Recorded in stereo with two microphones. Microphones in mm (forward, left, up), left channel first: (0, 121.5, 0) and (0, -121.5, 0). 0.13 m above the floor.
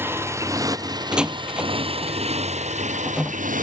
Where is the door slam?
5° right (ahead or behind).